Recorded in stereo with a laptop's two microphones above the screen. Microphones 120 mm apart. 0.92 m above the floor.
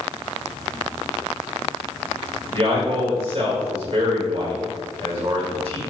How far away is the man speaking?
About 3 m.